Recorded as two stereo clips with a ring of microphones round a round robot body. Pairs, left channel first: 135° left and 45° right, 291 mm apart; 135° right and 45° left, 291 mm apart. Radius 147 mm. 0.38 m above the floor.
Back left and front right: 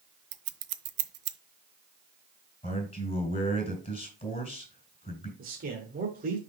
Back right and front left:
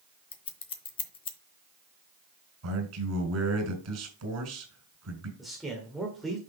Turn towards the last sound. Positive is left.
turn(degrees=-45)